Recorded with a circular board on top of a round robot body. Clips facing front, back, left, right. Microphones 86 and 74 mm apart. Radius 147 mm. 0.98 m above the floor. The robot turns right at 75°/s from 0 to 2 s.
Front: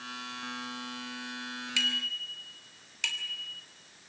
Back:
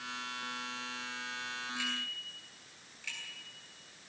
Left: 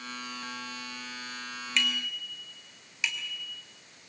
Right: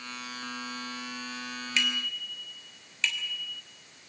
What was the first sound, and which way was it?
A bicycle bell, 5° right.